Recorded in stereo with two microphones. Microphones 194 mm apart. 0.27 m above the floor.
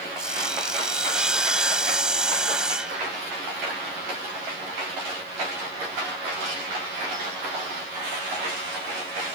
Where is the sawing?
5° right (ahead or behind).